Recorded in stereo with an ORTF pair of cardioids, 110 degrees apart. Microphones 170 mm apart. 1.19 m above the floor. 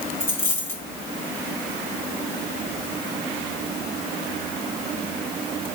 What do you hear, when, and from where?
0.2 s a dropped coin: 15° left, 5.5 m